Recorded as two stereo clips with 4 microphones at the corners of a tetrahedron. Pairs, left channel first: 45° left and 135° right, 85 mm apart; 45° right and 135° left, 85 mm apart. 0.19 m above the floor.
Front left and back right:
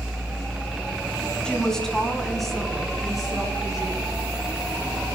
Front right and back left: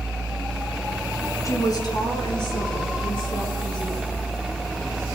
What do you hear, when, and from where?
1.4 s a woman speaking: 30° right, 1.8 m; by 4.1 s 50° right, 4.5 m